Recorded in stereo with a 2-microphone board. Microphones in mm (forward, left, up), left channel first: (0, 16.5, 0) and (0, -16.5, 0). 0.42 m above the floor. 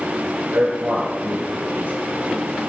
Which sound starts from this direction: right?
A man speaking, at 0.5 s.